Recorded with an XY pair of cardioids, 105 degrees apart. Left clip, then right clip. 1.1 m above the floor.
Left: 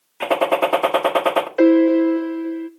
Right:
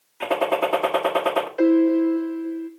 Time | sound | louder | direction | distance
0.2 | a gunshot | left 4 dB | 35° left | 1.6 m
1.6 | a piano | left 4 dB | 50° left | 0.9 m